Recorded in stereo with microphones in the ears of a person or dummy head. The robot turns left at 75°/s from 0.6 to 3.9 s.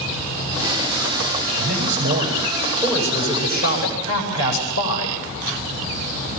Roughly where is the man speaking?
Right.